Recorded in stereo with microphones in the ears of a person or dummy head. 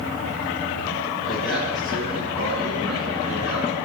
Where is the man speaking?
5° left (ahead or behind), 5 m; by 3.8 s 5° right (ahead or behind), 4 m.